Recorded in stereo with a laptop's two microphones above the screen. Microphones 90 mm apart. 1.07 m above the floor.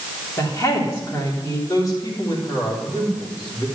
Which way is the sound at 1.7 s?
40° left (ahead or behind).